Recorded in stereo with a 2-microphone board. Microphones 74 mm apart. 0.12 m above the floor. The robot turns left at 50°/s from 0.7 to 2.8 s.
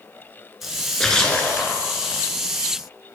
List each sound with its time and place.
0.6 s a splash: 175° right, 1.3 m; by 1.9 s 130° left, 1.3 m